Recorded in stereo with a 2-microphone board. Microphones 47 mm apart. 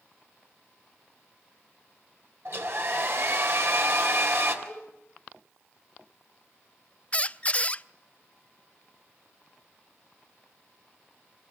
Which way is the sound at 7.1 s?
25° left (ahead or behind).